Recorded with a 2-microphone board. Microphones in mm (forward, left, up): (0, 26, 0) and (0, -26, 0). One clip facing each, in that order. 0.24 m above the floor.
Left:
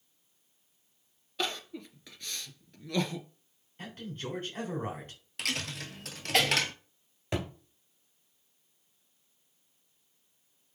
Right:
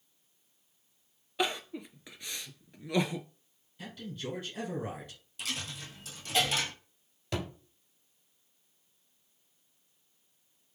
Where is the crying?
15° right (ahead or behind), 0.5 m.